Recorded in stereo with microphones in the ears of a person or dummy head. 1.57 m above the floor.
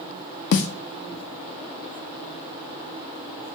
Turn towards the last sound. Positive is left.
turn(degrees=55)  # may be behind; listen again after turning